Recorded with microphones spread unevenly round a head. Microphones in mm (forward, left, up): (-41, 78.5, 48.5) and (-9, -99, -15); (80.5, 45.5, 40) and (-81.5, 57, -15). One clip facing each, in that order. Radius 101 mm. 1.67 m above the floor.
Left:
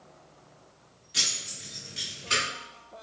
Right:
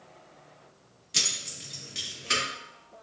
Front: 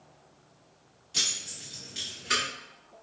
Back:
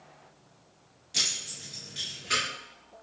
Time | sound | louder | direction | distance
1.1 | keys jangling | right 1 dB, even | 75° right | 1.0 m